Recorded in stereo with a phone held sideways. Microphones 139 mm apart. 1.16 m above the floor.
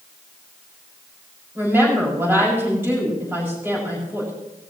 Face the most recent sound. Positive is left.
turn(degrees=-15)  # may be behind; listen again after turning